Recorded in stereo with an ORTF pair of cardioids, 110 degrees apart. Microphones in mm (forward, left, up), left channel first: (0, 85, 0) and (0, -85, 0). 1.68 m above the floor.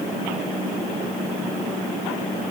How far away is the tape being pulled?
No tape being pulled in this recording.